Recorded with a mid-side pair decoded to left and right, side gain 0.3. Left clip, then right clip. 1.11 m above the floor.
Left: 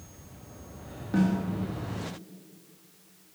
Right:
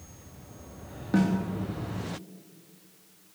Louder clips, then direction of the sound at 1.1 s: Right 1 dB; 50° right.